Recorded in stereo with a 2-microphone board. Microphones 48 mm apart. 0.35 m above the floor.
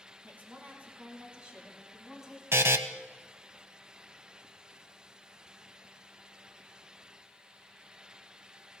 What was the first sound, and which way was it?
A woman speaking, 40° right (ahead or behind).